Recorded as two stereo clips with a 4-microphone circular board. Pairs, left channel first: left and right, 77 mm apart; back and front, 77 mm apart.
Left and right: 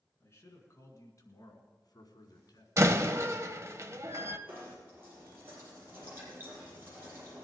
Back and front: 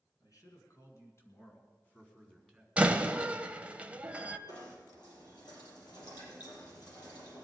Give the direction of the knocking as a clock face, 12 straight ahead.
5 o'clock.